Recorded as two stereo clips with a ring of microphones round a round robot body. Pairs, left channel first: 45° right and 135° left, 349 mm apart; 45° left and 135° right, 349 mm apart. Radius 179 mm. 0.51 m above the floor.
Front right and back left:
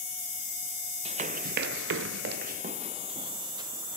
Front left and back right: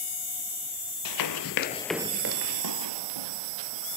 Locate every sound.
1.1 s running footsteps: 65° left, 0.8 m; by 4.0 s 145° right, 1.7 m